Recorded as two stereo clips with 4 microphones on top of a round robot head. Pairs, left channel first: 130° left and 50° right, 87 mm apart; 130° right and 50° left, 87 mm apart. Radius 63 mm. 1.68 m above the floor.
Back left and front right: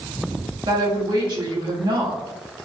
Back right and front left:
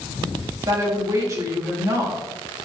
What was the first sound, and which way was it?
A woman speaking, 5° right.